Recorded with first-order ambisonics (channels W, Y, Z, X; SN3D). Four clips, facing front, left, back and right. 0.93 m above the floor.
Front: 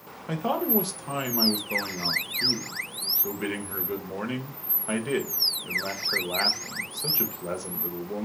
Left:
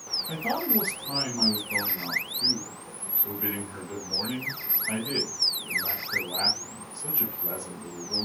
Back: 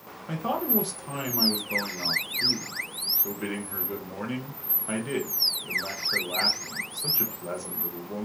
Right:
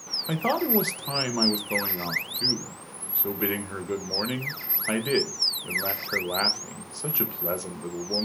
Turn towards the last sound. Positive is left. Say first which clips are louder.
# right 6 dB, front 2 dB
turn(degrees=-75)